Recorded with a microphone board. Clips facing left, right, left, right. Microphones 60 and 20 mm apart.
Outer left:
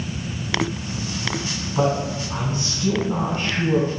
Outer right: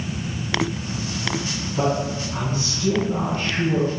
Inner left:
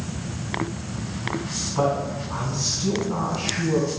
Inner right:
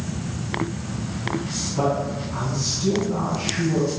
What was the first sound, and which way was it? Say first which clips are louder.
A man speaking: outer left 1 dB, even; 25° left (ahead or behind).